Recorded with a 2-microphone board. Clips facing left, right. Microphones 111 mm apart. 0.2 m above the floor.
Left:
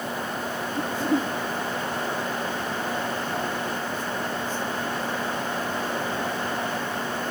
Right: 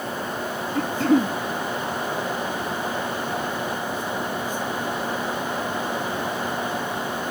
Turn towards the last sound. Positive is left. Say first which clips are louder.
# right 6 dB
turn(degrees=-75)  # may be behind; listen again after turning